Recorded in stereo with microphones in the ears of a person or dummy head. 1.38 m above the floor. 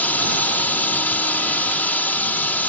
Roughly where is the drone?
Centre.